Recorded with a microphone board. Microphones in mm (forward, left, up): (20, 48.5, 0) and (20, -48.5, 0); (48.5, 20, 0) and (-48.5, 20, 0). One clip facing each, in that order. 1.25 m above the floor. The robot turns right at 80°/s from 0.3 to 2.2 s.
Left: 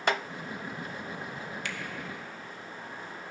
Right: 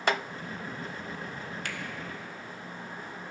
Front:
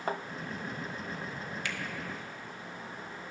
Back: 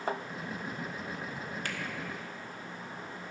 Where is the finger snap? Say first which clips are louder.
Even, even; 135° right, 0.9 m; by 1.8 s 120° right, 0.9 m.